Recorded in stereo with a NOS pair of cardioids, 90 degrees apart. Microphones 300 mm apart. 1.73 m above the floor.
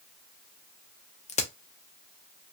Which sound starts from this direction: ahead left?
A crack, at 1.3 s.